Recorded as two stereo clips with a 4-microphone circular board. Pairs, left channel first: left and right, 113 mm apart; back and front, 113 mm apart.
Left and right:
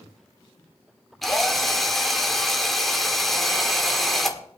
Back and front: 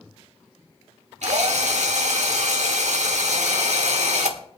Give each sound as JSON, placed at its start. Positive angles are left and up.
{"t": 1.2, "sound": "a drill", "azimuth_deg": 0, "distance_m": 1.4}